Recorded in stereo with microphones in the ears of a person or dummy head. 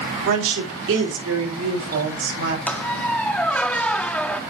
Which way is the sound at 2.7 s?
5° left (ahead or behind).